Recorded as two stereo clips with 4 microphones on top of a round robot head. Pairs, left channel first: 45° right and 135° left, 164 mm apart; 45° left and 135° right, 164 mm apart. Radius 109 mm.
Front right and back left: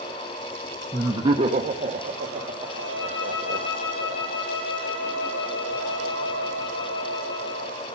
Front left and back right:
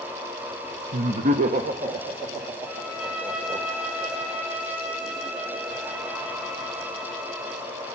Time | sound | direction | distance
0.9 | laughter | 150° right | 0.7 m
2.7 | a violin | 45° right | 3.5 m